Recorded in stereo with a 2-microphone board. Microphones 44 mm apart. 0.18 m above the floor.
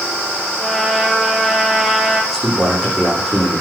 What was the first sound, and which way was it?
A trumpet, 5° right (ahead or behind).